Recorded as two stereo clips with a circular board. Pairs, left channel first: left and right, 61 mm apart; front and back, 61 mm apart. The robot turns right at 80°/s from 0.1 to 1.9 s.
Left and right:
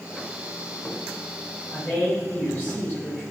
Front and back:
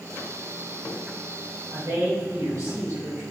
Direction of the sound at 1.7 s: 135° left.